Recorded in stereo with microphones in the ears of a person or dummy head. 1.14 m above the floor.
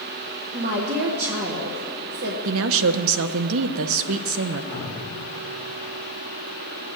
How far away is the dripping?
About 1.8 m.